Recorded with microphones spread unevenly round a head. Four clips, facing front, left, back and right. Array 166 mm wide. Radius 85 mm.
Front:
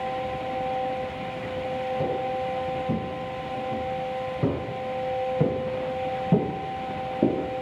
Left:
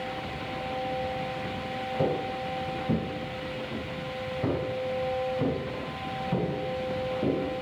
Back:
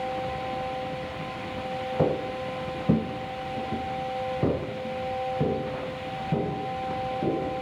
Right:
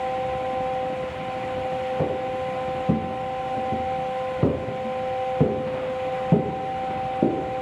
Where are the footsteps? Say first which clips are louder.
Right 3 dB, back 4 dB; 170° right, 3 m; by 7.6 s 55° right, 4 m.